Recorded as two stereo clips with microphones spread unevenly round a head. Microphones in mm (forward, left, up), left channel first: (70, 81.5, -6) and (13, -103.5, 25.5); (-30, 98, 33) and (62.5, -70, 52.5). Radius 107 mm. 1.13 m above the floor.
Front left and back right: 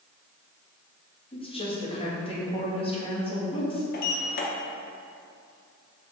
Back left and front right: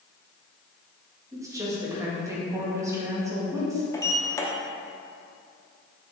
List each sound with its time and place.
1.3 s a woman speaking: 15° left, 2 m
3.9 s a sliding door: 50° left, 1.1 m